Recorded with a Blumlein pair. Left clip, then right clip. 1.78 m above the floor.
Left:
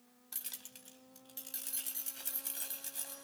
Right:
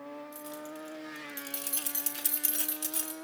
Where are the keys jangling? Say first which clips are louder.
Right 10 dB; 25° left, 2 m; by 3.1 s 50° right, 4 m.